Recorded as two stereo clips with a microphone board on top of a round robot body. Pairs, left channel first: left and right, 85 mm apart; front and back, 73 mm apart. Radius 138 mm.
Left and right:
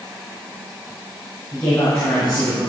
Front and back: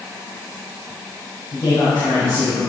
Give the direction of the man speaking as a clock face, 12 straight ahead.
11 o'clock.